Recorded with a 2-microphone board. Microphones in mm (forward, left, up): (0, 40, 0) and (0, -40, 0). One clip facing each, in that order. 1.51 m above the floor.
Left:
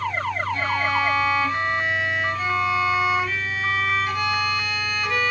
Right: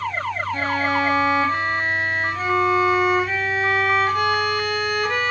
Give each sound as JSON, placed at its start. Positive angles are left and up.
{"t": 0.5, "sound": "a violin", "side_deg": -40, "distance_m": 1.6}